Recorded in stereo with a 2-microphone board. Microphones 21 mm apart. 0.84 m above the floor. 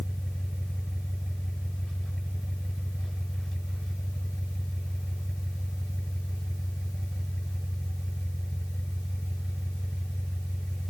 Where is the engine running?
45° left (ahead or behind), 9 m.